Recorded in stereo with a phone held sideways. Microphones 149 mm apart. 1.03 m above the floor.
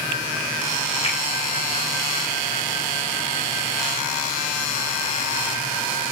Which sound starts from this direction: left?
A finger snap, at 1.0 s.